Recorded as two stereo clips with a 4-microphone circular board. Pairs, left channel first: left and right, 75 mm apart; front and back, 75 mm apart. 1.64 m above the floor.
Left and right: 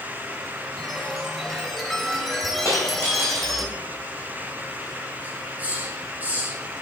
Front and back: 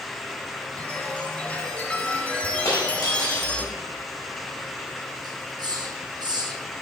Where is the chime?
5° left, 1.4 m.